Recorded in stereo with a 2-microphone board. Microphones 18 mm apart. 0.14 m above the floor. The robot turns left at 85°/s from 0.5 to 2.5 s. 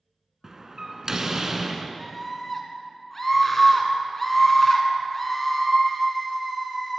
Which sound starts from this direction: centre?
A scream, at 2.0 s.